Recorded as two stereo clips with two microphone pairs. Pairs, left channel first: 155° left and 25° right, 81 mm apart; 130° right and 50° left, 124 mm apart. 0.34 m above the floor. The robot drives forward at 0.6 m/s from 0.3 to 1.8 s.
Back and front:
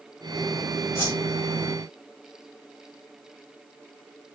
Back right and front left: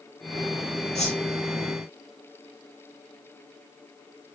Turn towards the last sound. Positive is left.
turn(degrees=-150)